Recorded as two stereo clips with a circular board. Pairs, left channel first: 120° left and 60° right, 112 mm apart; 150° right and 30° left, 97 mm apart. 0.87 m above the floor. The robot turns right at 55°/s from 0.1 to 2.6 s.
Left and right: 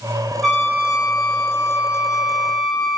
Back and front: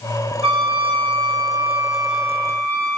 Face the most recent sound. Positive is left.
turn(degrees=155)